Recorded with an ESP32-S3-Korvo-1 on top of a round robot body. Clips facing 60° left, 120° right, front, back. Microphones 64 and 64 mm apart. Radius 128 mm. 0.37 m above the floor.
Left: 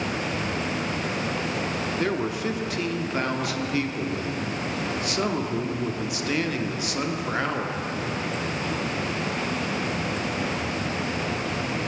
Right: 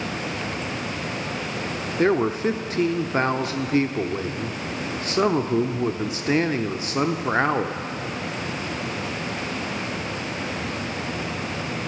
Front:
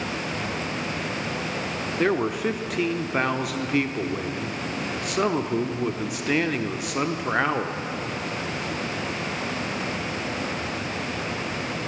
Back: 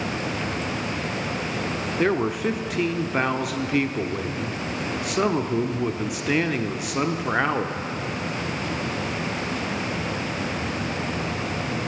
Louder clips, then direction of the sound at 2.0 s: Right 9 dB, even; 90° right.